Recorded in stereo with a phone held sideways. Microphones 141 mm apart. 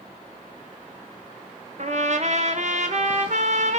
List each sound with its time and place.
1.8 s a trumpet: 55° right (ahead or behind), 0.8 m